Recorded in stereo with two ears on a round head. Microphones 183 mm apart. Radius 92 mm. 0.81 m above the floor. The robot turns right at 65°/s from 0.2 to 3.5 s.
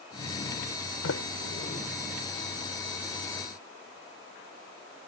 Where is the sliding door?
75° left (ahead or behind); by 1.9 s 35° left (ahead or behind).